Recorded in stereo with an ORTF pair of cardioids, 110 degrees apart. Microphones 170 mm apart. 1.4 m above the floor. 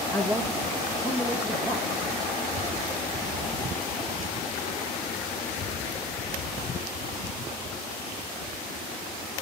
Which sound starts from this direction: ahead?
A man speaking, at 0.1 s.